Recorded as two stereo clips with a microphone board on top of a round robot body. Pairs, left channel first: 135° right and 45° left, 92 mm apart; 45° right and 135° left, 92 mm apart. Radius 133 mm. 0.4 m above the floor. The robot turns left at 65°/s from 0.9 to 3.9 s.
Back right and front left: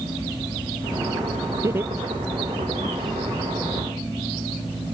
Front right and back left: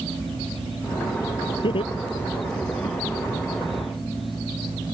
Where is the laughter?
10° right; by 3.0 s 100° right.